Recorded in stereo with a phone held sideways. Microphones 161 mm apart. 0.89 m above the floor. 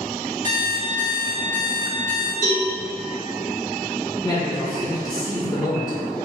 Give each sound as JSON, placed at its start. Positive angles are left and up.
{"t": 0.4, "sound": "an alarm clock", "side_deg": -50, "distance_m": 1.3}
{"t": 2.4, "sound": "a cowbell", "side_deg": 20, "distance_m": 1.7}
{"t": 4.2, "sound": "a man speaking", "side_deg": 25, "distance_m": 0.6}